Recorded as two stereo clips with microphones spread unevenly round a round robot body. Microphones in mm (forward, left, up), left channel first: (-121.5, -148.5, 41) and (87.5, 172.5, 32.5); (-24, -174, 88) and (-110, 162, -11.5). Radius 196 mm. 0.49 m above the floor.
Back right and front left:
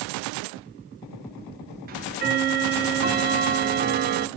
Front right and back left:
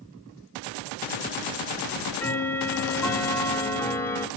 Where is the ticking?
40° left, 0.8 m.